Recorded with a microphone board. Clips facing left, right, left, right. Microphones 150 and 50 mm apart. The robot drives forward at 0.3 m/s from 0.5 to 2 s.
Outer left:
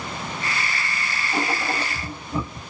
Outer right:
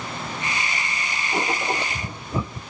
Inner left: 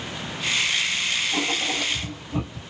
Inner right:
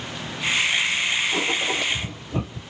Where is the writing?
25° right (ahead or behind), 1.9 m; by 2.6 s 20° right (ahead or behind), 2 m.